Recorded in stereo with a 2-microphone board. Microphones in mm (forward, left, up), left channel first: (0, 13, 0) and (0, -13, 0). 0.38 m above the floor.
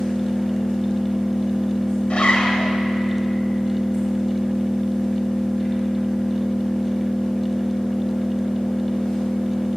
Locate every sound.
0.0 s an engine running: 45° left (ahead or behind), 4.5 m
2.1 s a zipper: 50° left (ahead or behind), 1.0 m